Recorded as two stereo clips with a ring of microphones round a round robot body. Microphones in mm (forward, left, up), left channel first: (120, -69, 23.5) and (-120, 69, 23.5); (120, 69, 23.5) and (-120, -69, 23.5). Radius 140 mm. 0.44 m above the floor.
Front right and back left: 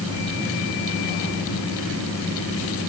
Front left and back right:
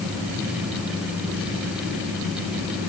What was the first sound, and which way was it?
Only background noise.